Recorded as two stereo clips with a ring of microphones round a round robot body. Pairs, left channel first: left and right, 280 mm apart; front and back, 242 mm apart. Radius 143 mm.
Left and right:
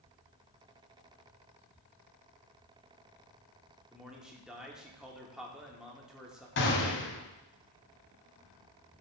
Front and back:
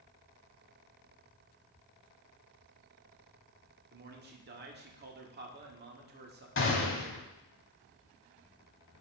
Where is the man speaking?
175° right, 1.4 m.